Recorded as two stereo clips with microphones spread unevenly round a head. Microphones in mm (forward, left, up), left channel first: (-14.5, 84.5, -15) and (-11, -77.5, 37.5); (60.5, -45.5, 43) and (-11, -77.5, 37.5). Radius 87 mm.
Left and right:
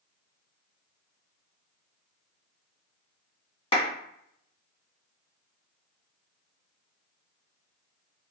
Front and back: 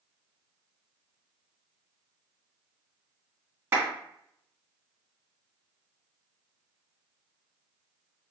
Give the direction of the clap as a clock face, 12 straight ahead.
7 o'clock.